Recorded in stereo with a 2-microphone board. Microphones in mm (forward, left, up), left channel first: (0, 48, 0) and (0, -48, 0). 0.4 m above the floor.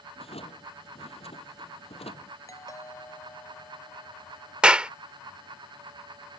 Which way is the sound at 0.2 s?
85° left.